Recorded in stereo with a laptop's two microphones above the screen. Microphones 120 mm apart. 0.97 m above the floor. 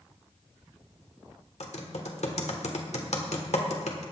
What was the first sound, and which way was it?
Typing on a keyboard, 75° left (ahead or behind).